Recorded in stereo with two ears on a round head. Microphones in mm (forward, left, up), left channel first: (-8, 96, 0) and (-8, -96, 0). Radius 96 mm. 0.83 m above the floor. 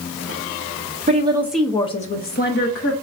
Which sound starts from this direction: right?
A woman speaking, at 1.1 s.